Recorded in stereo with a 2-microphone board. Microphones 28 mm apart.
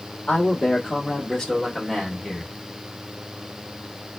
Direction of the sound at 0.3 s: 45° left (ahead or behind).